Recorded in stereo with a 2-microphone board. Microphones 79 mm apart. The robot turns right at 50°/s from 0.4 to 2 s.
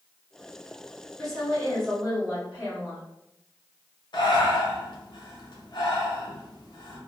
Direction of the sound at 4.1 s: 65° left (ahead or behind).